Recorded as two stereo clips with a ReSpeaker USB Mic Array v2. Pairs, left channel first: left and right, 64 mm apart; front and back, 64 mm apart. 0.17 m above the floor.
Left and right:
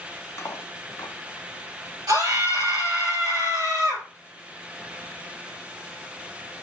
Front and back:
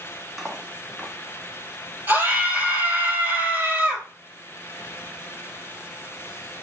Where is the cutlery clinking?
90° left, 1.0 m.